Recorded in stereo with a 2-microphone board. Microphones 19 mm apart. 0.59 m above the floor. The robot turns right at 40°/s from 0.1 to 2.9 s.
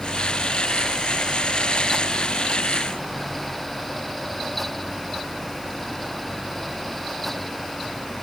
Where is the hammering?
No hammering in this recording.